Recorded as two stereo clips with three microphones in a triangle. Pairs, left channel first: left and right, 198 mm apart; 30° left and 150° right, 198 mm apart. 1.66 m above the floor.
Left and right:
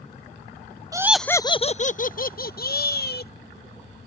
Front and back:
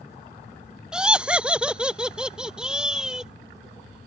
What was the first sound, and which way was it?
Laughter, 75° right.